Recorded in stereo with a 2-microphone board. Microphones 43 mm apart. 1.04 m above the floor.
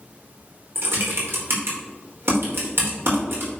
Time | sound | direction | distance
0.8 | typing on a keyboard | 65° right (ahead or behind) | 3 m